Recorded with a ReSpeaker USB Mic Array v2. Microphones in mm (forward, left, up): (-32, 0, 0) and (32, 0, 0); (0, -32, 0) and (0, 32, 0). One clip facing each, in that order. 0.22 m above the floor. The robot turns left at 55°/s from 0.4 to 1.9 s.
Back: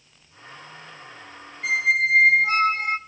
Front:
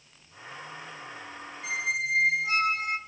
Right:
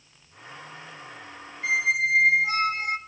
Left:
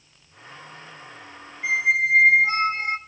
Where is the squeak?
155° left, 0.6 m; by 3.0 s 140° left, 0.6 m.